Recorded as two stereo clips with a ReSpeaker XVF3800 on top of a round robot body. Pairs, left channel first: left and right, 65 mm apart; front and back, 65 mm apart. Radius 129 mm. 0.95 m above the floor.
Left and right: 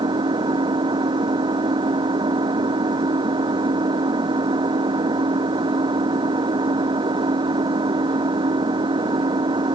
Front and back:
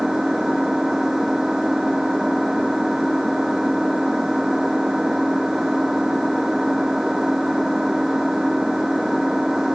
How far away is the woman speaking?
No woman speaking in this recording.